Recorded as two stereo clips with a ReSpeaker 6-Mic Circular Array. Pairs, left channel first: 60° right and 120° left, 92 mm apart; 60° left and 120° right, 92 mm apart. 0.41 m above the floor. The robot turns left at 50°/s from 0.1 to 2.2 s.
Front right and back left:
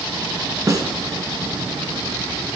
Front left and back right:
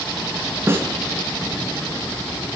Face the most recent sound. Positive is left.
turn(degrees=100)